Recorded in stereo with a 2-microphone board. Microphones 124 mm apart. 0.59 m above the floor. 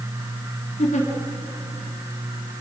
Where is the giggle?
70° left (ahead or behind), 3.5 m.